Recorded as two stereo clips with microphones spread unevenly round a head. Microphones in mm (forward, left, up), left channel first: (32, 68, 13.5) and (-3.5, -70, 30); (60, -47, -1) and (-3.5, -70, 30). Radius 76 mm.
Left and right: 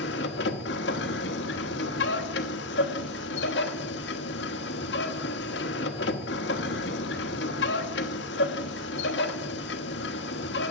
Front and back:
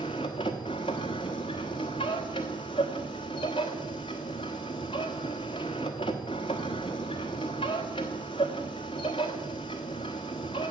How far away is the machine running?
About 1.1 m.